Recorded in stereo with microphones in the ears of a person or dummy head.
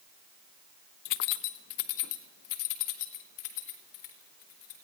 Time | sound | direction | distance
1.1 | keys jangling | 50° left (ahead or behind) | 0.7 m